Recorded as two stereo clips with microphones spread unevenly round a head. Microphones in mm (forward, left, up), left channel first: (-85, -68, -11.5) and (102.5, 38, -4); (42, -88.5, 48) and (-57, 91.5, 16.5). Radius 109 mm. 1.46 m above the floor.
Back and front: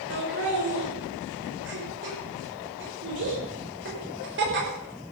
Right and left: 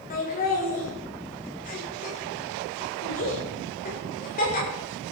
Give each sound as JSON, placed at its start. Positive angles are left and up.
{"t": 0.1, "sound": "laughter", "azimuth_deg": -10, "distance_m": 6.5}